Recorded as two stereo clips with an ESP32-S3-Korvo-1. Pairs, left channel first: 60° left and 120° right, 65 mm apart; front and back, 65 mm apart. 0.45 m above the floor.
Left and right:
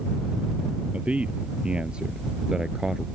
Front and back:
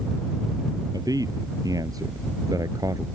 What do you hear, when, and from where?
0.9 s a man speaking: 170° left; by 3.1 s 160° left